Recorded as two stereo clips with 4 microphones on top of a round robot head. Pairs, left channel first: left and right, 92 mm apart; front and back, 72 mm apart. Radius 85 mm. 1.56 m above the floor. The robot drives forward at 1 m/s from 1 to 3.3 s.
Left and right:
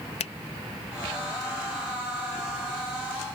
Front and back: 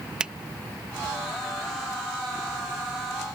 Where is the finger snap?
105° left.